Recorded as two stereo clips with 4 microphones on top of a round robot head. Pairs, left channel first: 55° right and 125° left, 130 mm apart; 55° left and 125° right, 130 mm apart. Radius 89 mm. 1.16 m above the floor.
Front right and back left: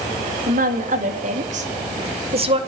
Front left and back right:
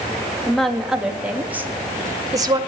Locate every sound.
0.5 s a woman speaking: 140° left, 2.5 m; by 2.6 s 175° left, 2 m